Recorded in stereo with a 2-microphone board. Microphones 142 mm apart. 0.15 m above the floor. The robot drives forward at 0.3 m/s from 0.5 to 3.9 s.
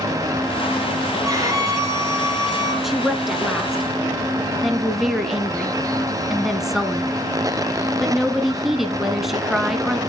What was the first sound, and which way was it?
A violin, 25° right (ahead or behind).